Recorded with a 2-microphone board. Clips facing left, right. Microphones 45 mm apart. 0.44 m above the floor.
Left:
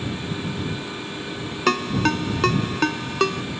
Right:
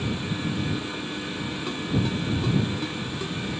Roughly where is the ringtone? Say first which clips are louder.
Left 8 dB; left.